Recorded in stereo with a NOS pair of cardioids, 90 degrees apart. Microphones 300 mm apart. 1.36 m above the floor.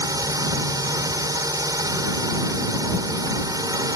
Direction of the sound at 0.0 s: 10° right.